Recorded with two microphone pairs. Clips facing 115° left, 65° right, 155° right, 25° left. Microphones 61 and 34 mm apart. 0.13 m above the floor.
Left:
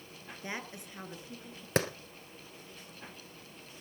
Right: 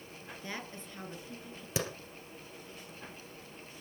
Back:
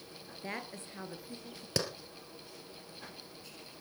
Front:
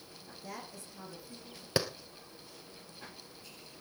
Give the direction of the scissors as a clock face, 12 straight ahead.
No scissors in this recording.